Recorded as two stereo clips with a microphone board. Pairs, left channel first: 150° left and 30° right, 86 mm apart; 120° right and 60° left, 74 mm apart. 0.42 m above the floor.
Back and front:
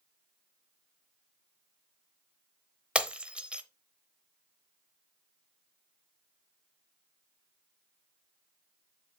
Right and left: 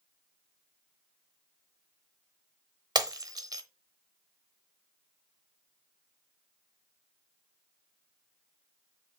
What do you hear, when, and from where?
3.0 s breaking glass: 45° left, 0.8 m